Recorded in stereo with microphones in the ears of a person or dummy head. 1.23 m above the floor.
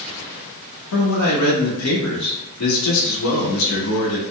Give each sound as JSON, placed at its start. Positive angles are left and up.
{"t": 0.9, "sound": "a man speaking", "side_deg": 85, "distance_m": 1.2}